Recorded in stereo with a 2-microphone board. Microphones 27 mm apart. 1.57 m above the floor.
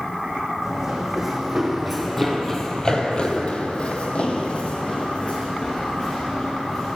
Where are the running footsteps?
15° right (ahead or behind), 3.5 m; by 7.0 s 35° left (ahead or behind), 6 m.